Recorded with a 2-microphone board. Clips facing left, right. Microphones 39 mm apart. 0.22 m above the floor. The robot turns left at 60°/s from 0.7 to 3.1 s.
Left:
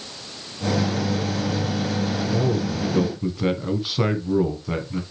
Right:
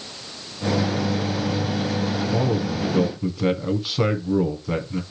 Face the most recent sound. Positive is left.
turn(degrees=175)